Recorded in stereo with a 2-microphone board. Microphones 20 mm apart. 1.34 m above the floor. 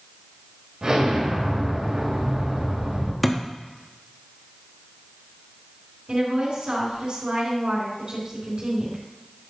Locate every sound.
0.8 s an explosion: 40° right (ahead or behind), 2.5 m
3.2 s a thud: 5° left (ahead or behind), 0.8 m
6.1 s a woman speaking: 50° right (ahead or behind), 4 m